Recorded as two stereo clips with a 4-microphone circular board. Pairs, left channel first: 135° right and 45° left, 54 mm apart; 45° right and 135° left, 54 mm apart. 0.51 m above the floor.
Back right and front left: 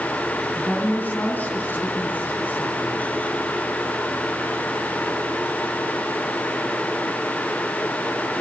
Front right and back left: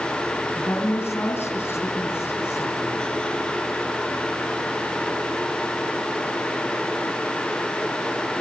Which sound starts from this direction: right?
A woman speaking, at 0.6 s.